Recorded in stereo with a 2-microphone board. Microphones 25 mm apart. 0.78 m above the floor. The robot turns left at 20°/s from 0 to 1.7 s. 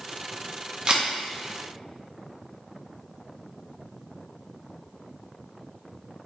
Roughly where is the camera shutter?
Right.